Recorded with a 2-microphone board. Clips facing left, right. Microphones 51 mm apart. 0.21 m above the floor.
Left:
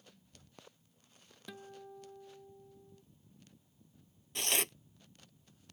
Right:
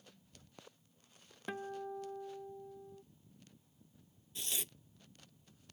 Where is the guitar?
40° right (ahead or behind).